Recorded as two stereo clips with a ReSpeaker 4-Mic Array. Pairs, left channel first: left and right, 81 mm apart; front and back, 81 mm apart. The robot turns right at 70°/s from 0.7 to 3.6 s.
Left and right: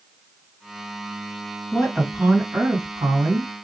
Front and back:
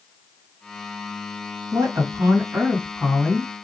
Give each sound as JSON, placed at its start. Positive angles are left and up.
{"t": 1.7, "sound": "a woman speaking", "azimuth_deg": 175, "distance_m": 2.0}